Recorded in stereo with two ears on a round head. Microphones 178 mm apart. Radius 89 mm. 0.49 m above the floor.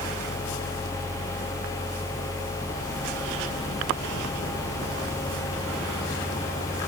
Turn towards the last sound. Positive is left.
No sound to turn to.